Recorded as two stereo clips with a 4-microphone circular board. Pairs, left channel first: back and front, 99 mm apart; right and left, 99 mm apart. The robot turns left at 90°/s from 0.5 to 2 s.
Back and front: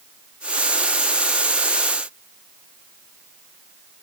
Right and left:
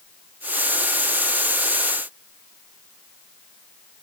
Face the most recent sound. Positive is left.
No sound to turn to.